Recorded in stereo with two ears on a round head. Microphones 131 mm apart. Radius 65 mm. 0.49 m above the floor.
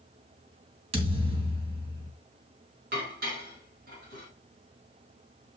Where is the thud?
40° right (ahead or behind), 3 m.